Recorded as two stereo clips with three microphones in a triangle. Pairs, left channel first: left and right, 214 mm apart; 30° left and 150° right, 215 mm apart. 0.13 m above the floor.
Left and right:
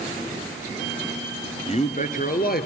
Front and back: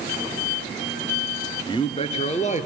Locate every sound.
1.7 s a man speaking: 75° left, 1.2 m; by 2.7 s 70° left, 1.7 m